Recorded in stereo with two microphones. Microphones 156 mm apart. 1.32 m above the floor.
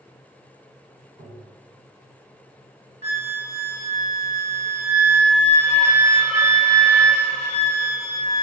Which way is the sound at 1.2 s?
75° right (ahead or behind).